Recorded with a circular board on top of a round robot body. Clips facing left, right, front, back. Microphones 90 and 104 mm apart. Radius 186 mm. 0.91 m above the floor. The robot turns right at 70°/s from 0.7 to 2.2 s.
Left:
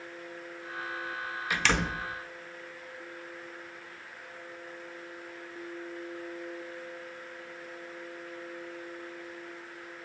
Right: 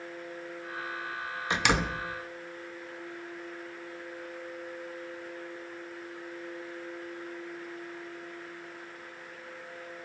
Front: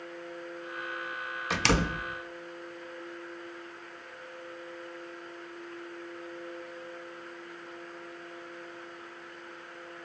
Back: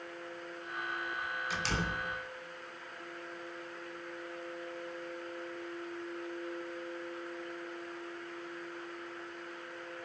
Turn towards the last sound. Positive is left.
turn(degrees=25)